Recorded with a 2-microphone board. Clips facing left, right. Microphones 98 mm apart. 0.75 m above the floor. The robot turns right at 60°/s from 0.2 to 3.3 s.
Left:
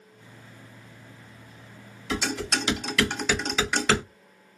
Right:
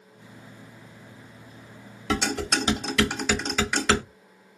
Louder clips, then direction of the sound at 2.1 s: Right 3 dB; 65° right (ahead or behind).